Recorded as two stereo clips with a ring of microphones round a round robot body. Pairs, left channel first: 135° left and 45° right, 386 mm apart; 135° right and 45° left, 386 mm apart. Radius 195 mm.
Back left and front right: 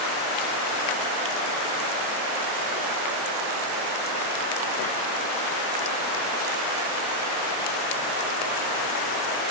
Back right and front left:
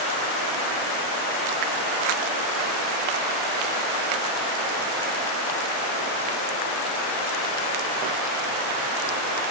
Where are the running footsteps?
No running footsteps in this recording.